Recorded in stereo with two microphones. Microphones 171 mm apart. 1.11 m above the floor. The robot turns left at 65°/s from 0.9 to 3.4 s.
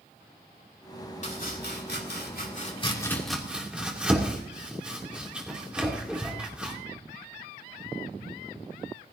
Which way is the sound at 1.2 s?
45° left (ahead or behind).